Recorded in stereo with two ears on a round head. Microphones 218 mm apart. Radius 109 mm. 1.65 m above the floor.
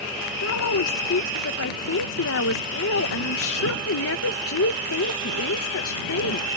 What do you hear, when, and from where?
0.4 s a woman speaking: 65° left (ahead or behind)